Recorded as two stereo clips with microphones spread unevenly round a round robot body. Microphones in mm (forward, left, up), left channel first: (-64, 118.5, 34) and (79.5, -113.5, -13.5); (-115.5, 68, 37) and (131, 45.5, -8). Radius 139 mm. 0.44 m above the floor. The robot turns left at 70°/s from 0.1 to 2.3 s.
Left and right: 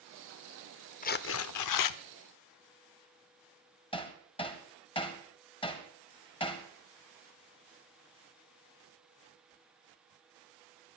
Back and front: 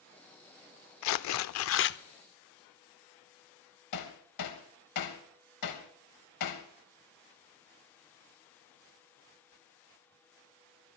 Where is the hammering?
165° right, 1.9 m.